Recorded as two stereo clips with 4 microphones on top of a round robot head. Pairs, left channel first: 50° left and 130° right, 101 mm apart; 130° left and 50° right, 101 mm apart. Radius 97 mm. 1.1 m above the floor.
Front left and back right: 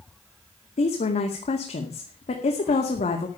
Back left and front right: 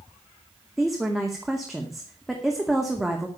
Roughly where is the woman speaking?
Ahead left.